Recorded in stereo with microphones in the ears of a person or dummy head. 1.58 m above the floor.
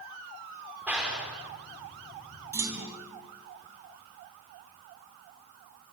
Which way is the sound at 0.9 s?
5° right (ahead or behind).